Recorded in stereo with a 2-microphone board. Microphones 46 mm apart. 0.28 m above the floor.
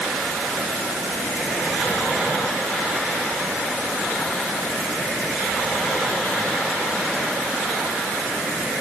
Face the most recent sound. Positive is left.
No sound to turn to.